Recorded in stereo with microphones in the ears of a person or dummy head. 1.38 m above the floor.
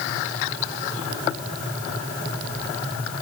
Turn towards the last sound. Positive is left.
No sound to turn to.